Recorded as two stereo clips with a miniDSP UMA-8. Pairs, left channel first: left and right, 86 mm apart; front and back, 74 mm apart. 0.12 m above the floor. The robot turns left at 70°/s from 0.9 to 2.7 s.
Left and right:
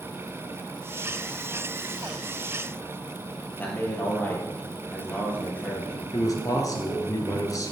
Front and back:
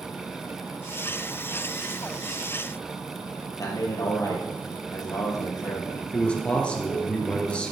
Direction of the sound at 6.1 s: 70° left.